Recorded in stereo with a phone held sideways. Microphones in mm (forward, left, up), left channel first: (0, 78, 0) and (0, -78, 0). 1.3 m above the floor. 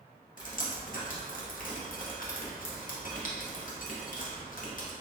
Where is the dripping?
55° left (ahead or behind), 0.6 m.